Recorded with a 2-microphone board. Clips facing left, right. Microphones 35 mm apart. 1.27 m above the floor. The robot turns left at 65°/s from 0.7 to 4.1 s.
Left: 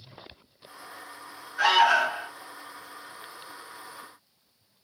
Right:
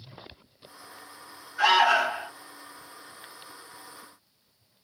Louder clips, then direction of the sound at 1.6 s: Even; 15° left.